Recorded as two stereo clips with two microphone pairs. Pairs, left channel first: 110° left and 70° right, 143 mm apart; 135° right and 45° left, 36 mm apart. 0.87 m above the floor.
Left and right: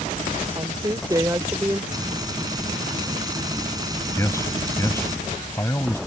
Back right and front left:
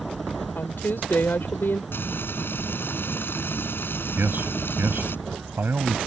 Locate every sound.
0.6 s a woman speaking: 130° right; by 1.8 s 140° right
1.9 s frying: 135° right
4.2 s a man speaking: 40° left